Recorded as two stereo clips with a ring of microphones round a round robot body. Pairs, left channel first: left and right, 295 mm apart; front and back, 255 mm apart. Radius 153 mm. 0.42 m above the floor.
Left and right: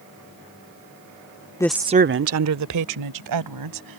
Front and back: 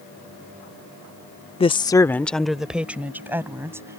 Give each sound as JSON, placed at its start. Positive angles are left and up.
{"t": 1.6, "sound": "a woman speaking", "azimuth_deg": 30}